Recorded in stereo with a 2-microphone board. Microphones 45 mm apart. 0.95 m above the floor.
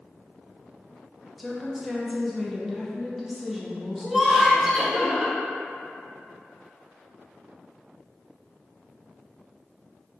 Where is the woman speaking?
Centre (ahead or behind), 0.5 m.